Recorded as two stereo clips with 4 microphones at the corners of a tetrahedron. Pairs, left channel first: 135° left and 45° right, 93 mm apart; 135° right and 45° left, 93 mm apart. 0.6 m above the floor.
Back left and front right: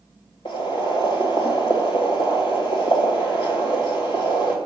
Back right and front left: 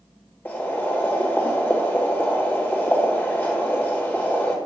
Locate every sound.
0.5 s boiling: 155° left, 1.4 m